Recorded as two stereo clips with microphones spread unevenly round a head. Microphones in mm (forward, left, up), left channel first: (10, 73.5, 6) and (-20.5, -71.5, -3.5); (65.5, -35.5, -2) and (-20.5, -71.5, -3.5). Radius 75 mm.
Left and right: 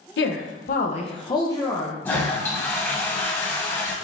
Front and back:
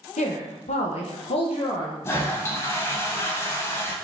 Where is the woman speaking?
60° left, 1.1 m; by 1.9 s 5° right, 1.3 m.